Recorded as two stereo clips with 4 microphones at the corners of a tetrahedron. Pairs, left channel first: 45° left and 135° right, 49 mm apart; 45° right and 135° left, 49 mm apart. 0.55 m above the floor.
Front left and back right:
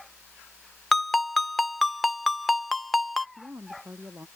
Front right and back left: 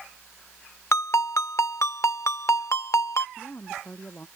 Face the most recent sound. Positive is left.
turn(degrees=-95)